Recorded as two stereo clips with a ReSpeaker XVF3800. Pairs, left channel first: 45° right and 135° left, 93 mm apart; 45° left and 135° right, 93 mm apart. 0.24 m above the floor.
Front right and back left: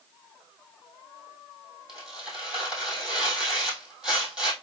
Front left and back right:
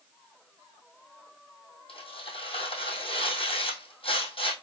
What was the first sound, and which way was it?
Tearing paper, 50° left.